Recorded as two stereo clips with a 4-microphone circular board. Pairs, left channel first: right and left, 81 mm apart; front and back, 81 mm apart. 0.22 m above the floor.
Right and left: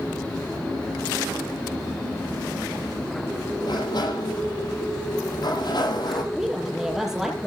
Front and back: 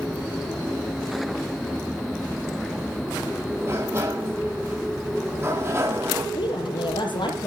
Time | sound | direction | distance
3.6 | a sliding door | 120° right | 7.5 m
6.3 | a woman speaking | 5° left | 5.5 m